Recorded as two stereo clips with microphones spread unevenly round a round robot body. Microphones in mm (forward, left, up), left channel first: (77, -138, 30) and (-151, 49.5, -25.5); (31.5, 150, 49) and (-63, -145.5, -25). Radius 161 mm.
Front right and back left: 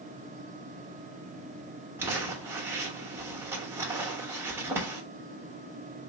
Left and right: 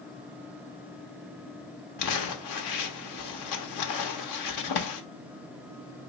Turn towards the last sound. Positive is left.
turn(degrees=70)